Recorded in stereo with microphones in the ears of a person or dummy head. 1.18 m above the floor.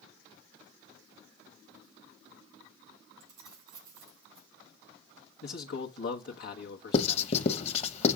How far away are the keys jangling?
About 3.5 m.